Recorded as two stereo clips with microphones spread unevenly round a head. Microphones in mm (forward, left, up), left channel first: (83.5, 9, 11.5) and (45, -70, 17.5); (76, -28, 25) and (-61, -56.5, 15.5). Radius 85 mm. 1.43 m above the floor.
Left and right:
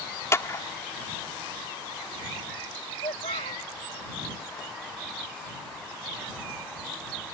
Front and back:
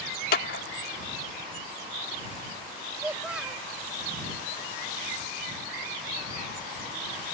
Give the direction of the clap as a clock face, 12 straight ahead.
12 o'clock.